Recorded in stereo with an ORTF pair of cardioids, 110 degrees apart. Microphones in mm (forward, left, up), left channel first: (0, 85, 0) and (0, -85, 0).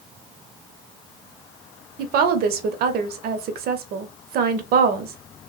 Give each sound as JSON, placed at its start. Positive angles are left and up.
{"t": 2.0, "sound": "a woman speaking", "azimuth_deg": -65, "distance_m": 0.6}